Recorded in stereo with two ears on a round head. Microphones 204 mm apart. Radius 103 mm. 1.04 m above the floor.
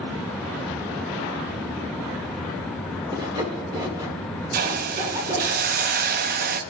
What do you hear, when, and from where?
3.1 s sawing: 20° right (ahead or behind), 1.2 m
4.5 s a hiss: 40° right (ahead or behind), 0.5 m